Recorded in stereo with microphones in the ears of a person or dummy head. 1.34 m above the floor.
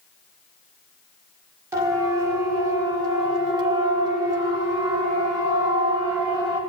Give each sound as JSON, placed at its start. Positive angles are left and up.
{"t": 1.7, "sound": "a siren", "side_deg": -15, "distance_m": 5.5}